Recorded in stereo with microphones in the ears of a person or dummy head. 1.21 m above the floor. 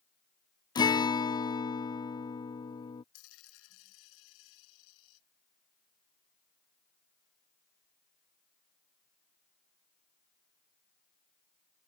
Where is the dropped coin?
80° left.